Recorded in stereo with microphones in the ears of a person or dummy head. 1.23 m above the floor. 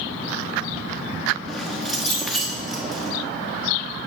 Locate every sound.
1.5 s keys jangling: centre (ahead or behind), 1.0 m